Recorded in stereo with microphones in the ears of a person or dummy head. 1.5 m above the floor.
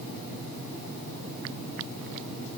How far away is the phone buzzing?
No phone buzzing in this recording.